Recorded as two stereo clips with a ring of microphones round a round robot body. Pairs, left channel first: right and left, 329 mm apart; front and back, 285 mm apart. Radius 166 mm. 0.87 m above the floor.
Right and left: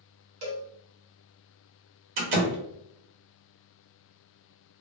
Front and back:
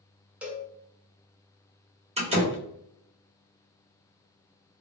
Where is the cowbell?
95° left, 1.2 m.